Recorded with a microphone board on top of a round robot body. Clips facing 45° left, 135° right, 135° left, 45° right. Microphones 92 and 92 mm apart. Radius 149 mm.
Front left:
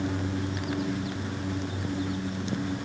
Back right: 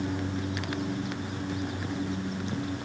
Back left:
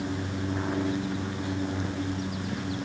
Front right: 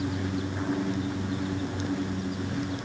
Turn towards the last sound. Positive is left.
No sound to turn to.